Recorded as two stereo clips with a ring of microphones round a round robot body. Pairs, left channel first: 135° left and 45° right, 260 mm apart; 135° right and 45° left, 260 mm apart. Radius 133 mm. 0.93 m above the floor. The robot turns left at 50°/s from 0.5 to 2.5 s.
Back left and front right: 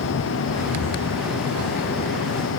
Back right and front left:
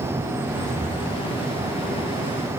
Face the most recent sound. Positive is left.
No sound to turn to.